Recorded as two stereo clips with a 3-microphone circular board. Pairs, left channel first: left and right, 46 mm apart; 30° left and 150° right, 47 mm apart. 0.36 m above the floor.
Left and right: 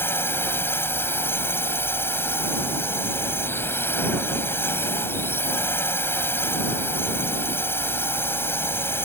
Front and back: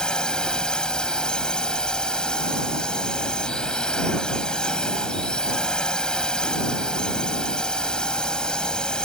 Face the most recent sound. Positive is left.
turn(degrees=100)